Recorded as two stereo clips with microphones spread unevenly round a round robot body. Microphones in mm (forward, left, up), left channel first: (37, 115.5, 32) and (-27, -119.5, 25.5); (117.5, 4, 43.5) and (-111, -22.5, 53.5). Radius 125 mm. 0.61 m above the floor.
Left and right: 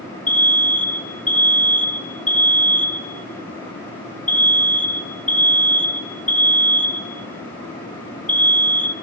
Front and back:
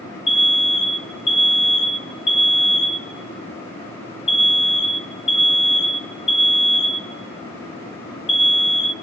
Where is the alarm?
5° right, 1.4 m.